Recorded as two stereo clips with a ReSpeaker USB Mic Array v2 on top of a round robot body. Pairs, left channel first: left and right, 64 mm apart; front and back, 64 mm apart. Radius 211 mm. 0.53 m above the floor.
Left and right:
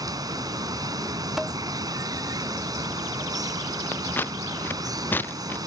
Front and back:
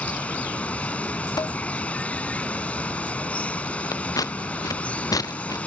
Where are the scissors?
30° left.